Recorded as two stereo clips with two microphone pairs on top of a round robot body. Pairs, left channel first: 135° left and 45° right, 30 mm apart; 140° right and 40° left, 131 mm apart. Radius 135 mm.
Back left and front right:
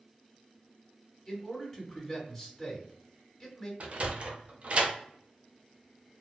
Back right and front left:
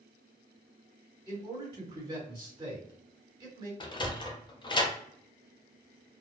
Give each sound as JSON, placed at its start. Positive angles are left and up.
{"t": 1.3, "sound": "a man speaking", "azimuth_deg": 70, "distance_m": 1.7}
{"t": 3.8, "sound": "a sliding door", "azimuth_deg": -85, "distance_m": 0.6}